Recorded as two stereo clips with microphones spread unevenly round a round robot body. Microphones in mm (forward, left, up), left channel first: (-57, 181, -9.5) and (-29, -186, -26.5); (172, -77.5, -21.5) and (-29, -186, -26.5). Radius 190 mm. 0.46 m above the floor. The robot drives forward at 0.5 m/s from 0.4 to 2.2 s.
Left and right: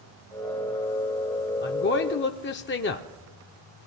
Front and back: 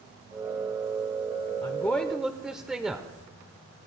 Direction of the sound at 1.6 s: 75° left.